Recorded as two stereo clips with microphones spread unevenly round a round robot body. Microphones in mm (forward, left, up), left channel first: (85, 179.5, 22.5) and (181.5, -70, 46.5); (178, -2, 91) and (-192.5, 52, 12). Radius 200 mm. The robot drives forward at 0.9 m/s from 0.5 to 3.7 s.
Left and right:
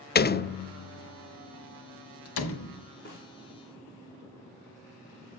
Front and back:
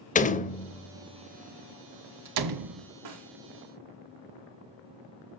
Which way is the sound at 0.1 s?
65° left.